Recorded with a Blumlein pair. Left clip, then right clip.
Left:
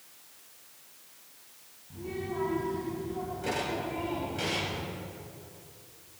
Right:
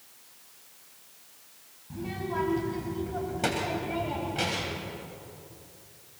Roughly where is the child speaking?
Ahead right.